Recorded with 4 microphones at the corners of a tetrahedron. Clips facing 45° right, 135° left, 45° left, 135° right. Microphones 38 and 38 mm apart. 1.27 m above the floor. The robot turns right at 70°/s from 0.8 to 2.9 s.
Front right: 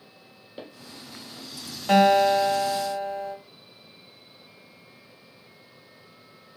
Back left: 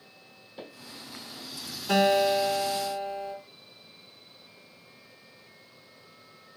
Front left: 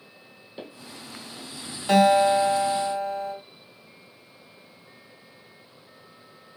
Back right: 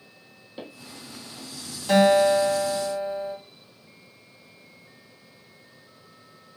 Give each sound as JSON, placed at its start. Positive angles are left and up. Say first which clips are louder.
{"t": 0.6, "sound": "footsteps", "louder": "front right 2 dB, even", "azimuth_deg": -65, "distance_m": 1.4}
{"t": 1.9, "sound": "a guitar", "louder": "front right 5 dB, even", "azimuth_deg": -25, "distance_m": 1.0}